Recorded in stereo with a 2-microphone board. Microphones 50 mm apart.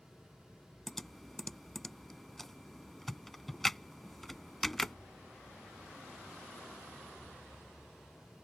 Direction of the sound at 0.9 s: 5° left (ahead or behind).